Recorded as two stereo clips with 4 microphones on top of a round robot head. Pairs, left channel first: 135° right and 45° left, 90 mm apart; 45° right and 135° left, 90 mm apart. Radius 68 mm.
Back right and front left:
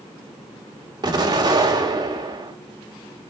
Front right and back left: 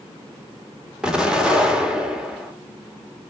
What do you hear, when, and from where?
1.0 s an explosion: 55° left, 2.0 m